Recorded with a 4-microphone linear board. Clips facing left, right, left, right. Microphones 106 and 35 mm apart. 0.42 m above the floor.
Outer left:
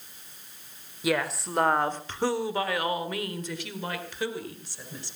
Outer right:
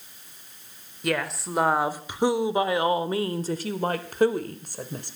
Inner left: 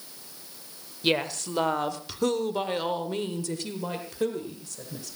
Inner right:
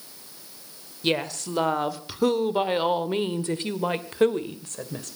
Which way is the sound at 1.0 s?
5° left (ahead or behind).